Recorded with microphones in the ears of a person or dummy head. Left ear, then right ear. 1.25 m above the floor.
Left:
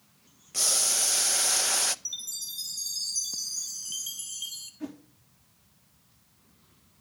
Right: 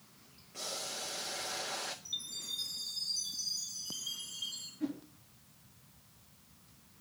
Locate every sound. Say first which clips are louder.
0.5 s boiling: left 14 dB; 75° left (ahead or behind), 0.6 m
2.0 s a chime: left 3 dB; 55° left (ahead or behind), 2.5 m
4.8 s a whoosh: right 3 dB; 40° left (ahead or behind), 3 m